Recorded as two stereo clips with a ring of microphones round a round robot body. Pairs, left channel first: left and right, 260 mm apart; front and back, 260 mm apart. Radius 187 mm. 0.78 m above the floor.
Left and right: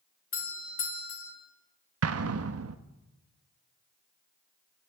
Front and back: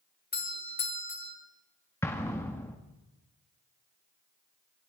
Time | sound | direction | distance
0.3 | a doorbell | 50° left | 4.5 m
2.0 | an explosion | 80° right | 1.3 m